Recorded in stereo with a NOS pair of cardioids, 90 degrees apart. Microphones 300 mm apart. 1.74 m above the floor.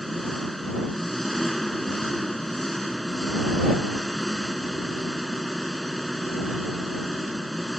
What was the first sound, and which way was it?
An engine running, straight ahead.